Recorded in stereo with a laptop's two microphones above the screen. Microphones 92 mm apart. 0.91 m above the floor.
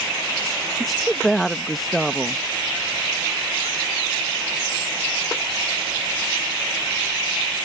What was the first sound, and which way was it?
A woman speaking, centre (ahead or behind).